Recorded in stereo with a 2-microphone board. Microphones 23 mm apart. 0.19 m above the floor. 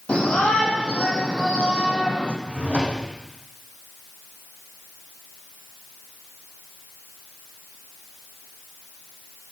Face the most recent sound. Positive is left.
turn(degrees=80)